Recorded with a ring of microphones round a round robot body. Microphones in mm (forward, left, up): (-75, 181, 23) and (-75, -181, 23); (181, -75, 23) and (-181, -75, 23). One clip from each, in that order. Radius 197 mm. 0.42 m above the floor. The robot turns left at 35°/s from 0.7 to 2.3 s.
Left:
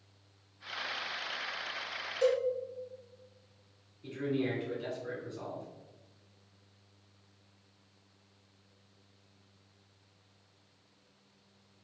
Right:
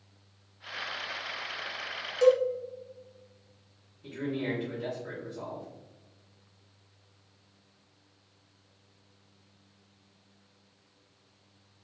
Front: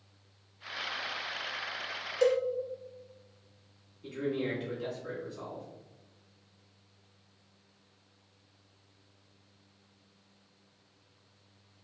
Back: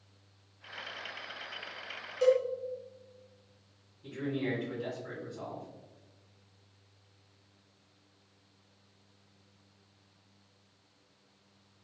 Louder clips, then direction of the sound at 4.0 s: Even, front 2 dB; 40° left.